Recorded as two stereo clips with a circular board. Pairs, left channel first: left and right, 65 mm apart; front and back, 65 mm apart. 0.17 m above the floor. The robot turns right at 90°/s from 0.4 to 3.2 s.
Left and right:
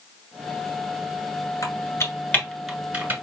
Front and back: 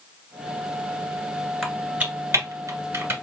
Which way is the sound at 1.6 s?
85° left.